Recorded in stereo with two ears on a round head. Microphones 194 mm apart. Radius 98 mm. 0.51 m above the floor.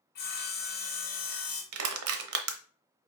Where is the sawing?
50° left (ahead or behind), 1.5 m.